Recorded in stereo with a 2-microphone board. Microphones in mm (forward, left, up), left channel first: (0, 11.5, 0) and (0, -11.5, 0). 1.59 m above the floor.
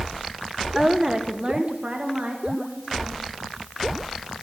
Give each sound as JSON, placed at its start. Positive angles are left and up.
{"t": 0.8, "sound": "a woman speaking", "side_deg": -20, "distance_m": 1.0}